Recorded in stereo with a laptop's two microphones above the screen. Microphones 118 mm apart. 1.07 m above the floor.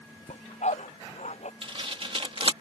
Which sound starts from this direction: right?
Tearing paper, at 1.6 s.